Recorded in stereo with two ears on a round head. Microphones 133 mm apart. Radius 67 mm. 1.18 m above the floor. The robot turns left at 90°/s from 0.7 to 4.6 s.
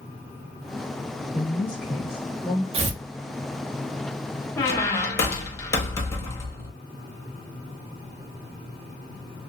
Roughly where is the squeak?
Centre.